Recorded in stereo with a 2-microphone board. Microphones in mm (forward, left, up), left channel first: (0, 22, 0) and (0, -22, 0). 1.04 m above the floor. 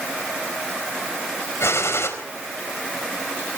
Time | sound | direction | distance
1.6 | a gunshot | 75° left (ahead or behind) | 4 m